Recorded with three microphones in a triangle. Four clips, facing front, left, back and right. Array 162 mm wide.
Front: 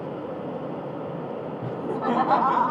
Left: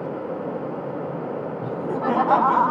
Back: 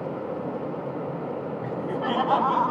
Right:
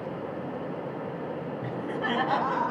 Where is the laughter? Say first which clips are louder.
Left 7 dB, front 2 dB; 45° left, 1.1 m; by 2.7 s 85° left, 1.6 m.